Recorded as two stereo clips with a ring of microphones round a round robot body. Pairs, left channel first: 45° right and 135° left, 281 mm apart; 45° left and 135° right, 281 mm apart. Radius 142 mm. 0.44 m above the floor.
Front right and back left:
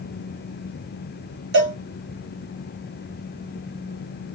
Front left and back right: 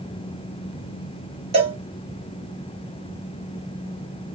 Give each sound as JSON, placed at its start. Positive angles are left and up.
{"t": 1.5, "sound": "a cowbell", "azimuth_deg": 155, "distance_m": 1.9}